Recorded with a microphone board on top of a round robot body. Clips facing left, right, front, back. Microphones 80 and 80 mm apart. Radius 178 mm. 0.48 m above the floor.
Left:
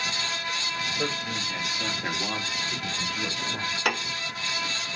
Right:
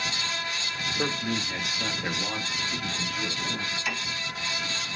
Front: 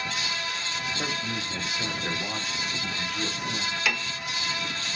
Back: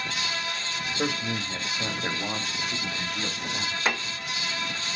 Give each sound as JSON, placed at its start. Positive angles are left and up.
{"t": 1.0, "sound": "a man speaking", "azimuth_deg": -135, "distance_m": 1.4}
{"t": 3.9, "sound": "a piano", "azimuth_deg": 120, "distance_m": 0.7}